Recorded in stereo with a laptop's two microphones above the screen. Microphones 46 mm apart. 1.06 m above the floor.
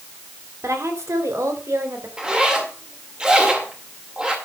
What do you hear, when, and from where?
0.6 s a woman speaking: 80° right, 3 m; by 2.1 s 85° right, 4 m
2.2 s a zipper: 15° right (ahead or behind), 2 m